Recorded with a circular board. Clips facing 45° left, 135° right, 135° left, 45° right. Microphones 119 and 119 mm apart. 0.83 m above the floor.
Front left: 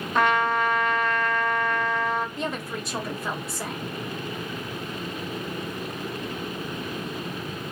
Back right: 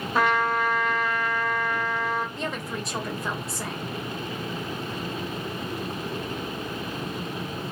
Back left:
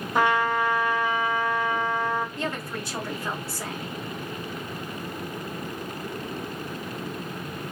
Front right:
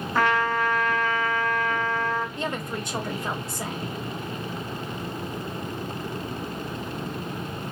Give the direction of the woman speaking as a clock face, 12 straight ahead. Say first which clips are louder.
Front left 1 dB, front right 1 dB; 1 o'clock.